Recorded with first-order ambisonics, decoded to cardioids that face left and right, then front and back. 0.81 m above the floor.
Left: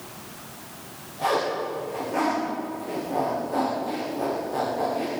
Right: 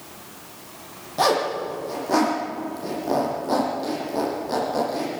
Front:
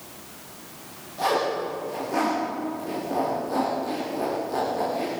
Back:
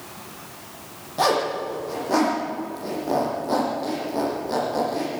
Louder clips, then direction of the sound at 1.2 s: Right 4 dB, back 3 dB; 125° right.